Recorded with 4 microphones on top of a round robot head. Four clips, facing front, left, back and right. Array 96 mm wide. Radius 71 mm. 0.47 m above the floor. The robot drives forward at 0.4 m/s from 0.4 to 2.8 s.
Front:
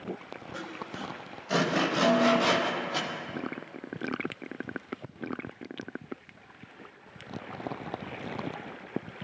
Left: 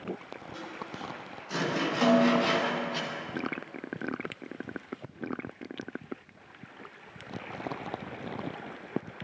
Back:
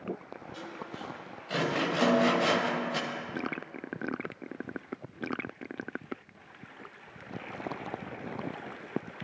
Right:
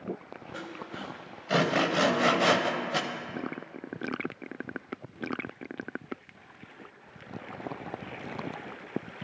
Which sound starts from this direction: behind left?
A snare drum, at 2.0 s.